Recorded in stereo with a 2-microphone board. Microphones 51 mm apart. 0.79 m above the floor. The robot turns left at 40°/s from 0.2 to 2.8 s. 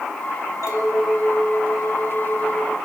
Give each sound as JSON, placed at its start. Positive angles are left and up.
{"t": 0.6, "sound": "a clink", "azimuth_deg": 75, "distance_m": 4.5}